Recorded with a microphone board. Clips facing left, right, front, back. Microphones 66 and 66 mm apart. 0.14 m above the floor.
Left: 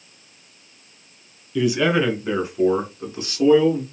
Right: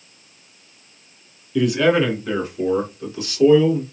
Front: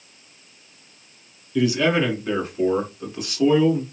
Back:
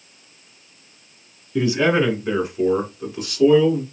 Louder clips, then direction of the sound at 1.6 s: Right 2 dB, back 1 dB; 170° left.